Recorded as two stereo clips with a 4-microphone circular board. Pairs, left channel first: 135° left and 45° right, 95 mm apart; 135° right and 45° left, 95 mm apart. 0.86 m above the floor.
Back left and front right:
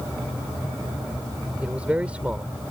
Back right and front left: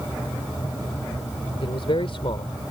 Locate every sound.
1.6 s a man speaking: 120° right